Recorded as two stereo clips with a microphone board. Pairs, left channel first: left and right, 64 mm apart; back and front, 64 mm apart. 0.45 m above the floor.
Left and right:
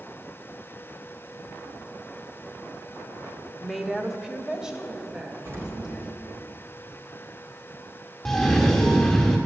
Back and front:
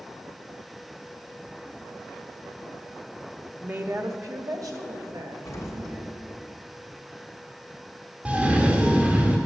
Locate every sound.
3.6 s a woman speaking: 10° left, 0.7 m; by 6.1 s 15° right, 3 m
5.5 s an explosion: 135° right, 2.5 m
8.2 s a cough: 20° left, 1.1 m